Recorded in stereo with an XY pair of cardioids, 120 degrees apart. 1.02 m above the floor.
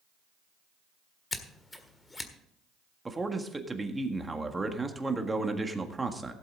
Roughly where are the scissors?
Ahead.